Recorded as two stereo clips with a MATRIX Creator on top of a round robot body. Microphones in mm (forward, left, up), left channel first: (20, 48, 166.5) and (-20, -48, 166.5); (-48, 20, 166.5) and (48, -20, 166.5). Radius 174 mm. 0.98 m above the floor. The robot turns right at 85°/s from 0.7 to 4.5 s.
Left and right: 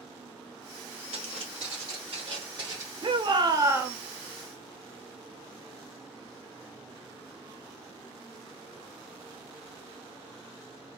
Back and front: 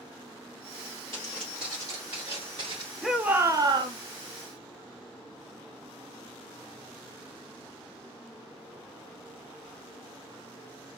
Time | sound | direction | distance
1.1 | footsteps | 140° right | 1.5 m
3.0 | a shout | 115° right | 1.0 m